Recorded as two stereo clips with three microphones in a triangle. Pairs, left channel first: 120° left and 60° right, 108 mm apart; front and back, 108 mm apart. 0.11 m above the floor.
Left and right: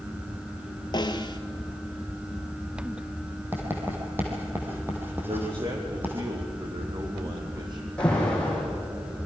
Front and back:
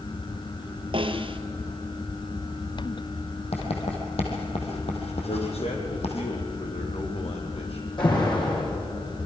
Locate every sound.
0.9 s a snare drum: 160° left, 1.3 m
3.5 s writing: 10° left, 4 m
5.3 s a man speaking: 15° right, 4 m
8.0 s an alarm: 40° left, 6.5 m